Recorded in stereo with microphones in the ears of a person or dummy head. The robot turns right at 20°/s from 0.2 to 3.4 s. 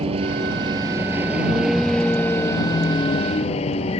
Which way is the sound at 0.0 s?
35° right.